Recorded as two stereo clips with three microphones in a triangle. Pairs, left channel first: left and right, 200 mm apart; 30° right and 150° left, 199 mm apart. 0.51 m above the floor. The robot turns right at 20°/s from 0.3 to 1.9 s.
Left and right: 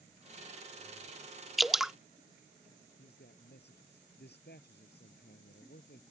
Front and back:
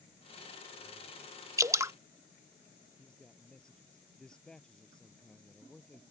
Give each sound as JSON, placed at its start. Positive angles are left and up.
{"t": 1.6, "sound": "dripping", "azimuth_deg": -175}
{"t": 3.0, "sound": "a man speaking", "azimuth_deg": 55}